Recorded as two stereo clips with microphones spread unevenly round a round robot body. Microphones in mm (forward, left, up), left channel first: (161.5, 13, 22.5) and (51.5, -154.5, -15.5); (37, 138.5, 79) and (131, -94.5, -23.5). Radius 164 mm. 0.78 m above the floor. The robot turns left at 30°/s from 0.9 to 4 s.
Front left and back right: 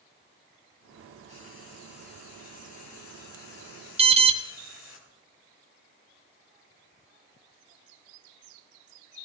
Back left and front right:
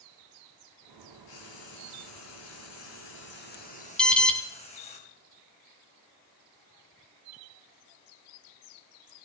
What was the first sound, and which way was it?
Frying, 130° left.